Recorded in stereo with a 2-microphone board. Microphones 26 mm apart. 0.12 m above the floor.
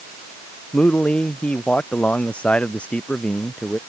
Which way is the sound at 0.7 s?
65° left (ahead or behind).